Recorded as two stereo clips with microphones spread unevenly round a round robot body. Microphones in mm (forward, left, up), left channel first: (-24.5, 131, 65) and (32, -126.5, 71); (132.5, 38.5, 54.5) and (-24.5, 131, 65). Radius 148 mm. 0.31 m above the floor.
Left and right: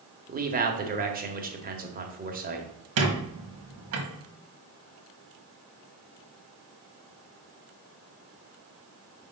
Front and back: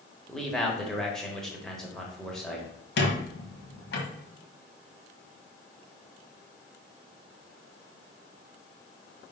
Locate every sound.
0.3 s a man speaking: 110° right, 1.3 m
3.0 s a squeak: 50° right, 1.6 m